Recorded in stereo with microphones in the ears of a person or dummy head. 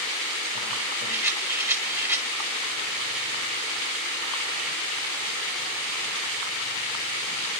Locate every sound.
1.1 s a rattle: 15° right (ahead or behind), 1.7 m